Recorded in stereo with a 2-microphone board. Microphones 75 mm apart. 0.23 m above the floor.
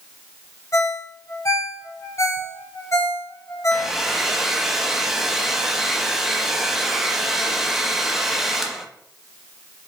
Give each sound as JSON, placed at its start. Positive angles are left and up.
{"t": 0.7, "sound": "a ringtone", "side_deg": 40, "distance_m": 0.8}
{"t": 3.7, "sound": "a hair dryer", "side_deg": -5, "distance_m": 0.6}